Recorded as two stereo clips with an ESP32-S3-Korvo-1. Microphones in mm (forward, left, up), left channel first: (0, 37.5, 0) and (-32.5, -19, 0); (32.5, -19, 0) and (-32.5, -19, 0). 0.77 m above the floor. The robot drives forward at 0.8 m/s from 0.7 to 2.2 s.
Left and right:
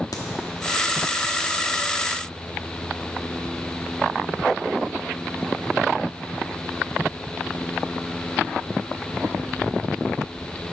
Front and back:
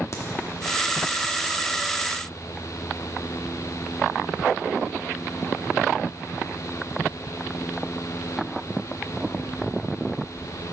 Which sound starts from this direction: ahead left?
A crack, at 0.1 s.